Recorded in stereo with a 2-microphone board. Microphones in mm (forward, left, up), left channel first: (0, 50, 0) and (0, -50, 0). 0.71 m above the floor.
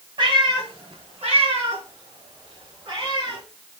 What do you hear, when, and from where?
0.2 s a cat meowing: 60° right (ahead or behind), 2.5 m